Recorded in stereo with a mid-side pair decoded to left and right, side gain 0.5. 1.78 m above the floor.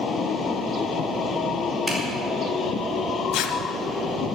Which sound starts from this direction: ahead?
A zipper, at 1.9 s.